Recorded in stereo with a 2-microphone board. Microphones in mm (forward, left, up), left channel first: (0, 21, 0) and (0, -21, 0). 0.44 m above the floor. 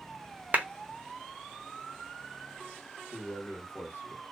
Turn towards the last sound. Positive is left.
turn(degrees=45)  # may be behind; listen again after turning